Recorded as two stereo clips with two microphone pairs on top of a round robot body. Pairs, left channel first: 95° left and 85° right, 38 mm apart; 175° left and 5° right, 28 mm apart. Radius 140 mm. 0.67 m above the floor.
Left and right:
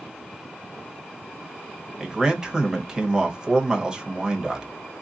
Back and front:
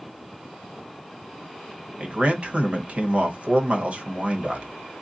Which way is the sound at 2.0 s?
10° right.